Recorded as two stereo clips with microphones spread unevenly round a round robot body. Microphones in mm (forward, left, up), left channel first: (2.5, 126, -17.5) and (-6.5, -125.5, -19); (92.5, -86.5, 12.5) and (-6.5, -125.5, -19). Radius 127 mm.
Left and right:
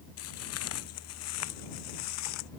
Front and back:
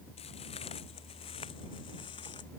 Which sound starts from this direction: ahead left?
Footsteps, at 0.2 s.